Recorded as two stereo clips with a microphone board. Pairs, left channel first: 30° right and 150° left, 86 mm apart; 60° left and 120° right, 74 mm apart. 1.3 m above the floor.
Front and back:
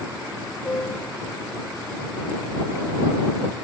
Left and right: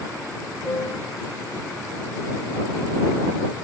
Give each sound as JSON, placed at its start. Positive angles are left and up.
{"t": 0.6, "sound": "a piano", "azimuth_deg": 20}